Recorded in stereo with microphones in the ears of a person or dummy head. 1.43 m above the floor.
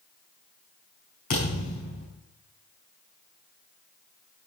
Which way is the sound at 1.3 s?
45° left (ahead or behind).